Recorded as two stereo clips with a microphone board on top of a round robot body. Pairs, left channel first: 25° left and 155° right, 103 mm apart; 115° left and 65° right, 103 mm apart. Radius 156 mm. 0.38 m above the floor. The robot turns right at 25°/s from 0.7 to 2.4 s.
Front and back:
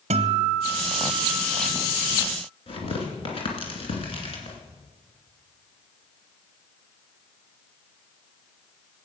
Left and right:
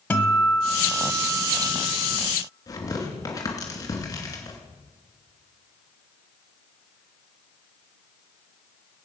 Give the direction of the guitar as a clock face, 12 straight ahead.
6 o'clock.